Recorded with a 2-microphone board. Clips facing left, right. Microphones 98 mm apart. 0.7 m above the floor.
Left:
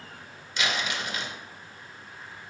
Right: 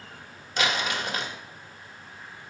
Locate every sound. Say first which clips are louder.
0.6 s crumpling: right 3 dB; 45° right (ahead or behind), 1.3 m